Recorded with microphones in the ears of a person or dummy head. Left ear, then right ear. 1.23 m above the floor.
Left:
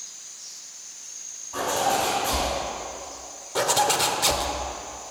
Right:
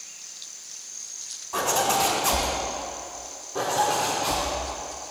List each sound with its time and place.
1.5 s a zipper: 70° right (ahead or behind), 2 m
3.5 s a zipper: 40° left (ahead or behind), 0.7 m